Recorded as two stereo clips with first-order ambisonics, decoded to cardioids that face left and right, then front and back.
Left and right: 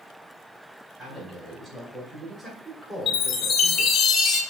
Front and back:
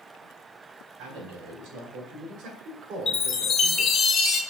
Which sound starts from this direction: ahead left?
A chime, at 3.1 s.